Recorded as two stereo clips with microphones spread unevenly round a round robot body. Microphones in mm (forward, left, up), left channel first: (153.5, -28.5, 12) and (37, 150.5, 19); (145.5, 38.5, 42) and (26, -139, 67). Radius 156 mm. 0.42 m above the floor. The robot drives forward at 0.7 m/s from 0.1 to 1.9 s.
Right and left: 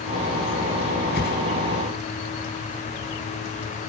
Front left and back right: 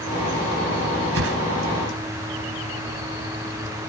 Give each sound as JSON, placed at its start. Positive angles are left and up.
{"t": 1.1, "sound": "a whoosh", "azimuth_deg": -115}